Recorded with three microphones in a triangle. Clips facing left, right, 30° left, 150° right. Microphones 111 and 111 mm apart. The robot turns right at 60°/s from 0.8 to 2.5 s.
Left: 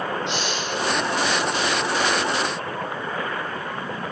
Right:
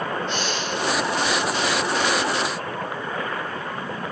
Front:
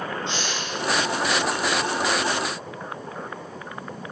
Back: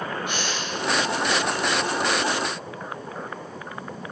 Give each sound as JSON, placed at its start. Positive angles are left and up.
{"t": 0.3, "sound": "a hiss", "azimuth_deg": 95, "distance_m": 9.5}